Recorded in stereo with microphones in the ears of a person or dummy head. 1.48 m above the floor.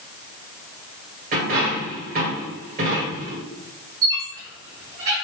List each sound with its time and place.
1.3 s a dropped coin: 45° right (ahead or behind), 2 m
4.0 s a squeak: 40° right (ahead or behind), 1.5 m